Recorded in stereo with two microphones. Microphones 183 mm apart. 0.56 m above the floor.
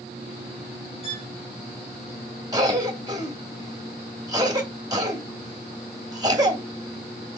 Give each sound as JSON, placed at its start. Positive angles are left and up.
{"t": 1.0, "sound": "a violin", "side_deg": 30, "distance_m": 1.4}
{"t": 2.5, "sound": "a cough", "side_deg": -20, "distance_m": 0.9}